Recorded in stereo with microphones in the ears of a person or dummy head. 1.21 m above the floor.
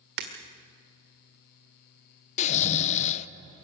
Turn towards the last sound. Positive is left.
turn(degrees=40)  # may be behind; listen again after turning